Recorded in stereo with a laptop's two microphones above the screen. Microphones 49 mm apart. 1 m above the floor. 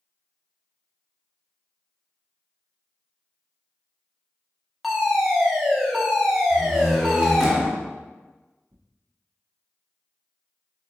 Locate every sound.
4.8 s a fire alarm: centre (ahead or behind), 1.6 m
6.5 s a door slam: 5° right (ahead or behind), 1.7 m
8.7 s tearing paper: 65° right (ahead or behind), 0.6 m